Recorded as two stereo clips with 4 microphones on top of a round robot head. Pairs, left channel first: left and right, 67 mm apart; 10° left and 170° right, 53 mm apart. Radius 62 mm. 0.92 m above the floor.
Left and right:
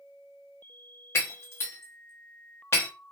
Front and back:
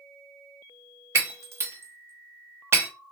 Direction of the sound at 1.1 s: 150° left.